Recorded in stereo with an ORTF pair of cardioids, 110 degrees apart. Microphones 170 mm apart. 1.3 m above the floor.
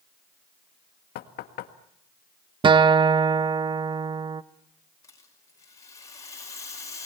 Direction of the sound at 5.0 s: 20° left.